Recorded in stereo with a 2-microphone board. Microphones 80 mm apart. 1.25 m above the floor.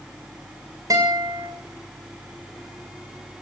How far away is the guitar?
About 6.5 m.